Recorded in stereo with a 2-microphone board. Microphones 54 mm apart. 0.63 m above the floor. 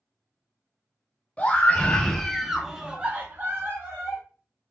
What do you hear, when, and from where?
1.4 s a scream: 20° left (ahead or behind), 1.1 m; by 4.2 s 50° right (ahead or behind), 1.0 m